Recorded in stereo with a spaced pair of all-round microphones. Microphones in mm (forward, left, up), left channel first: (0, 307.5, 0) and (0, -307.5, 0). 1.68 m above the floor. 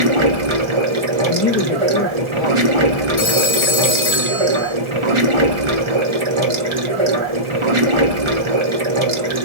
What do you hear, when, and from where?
0.0 s running water: 50° right (ahead or behind), 1.0 m
1.3 s a man speaking: 15° left (ahead or behind), 0.8 m
3.2 s a phone ringing: 30° left (ahead or behind), 1.6 m